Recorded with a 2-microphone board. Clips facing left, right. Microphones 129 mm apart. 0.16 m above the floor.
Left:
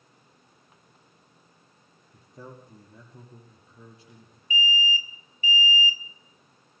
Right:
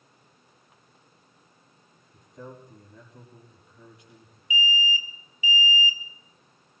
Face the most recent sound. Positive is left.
turn(degrees=-10)  # may be behind; listen again after turning